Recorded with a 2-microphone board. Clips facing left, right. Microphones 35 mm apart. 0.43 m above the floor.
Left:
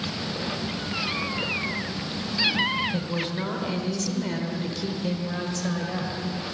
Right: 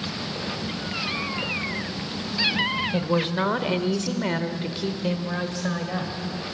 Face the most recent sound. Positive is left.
turn(degrees=-15)  # may be behind; listen again after turning